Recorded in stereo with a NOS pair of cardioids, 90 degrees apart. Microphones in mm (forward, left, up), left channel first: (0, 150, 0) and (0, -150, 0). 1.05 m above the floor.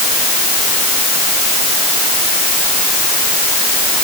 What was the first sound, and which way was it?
Only background noise.